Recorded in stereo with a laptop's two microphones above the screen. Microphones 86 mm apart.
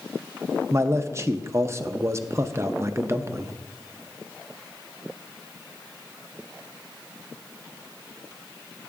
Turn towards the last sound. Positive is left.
turn(degrees=-30)  # may be behind; listen again after turning